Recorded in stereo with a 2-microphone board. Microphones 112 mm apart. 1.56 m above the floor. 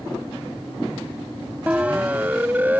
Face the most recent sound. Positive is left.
turn(degrees=-15)  # may be behind; listen again after turning